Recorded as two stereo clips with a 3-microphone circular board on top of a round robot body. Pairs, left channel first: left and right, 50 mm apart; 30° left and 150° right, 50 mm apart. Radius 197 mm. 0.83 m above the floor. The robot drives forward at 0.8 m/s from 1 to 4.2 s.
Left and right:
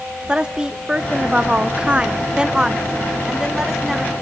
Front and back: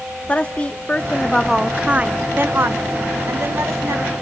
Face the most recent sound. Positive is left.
turn(degrees=-175)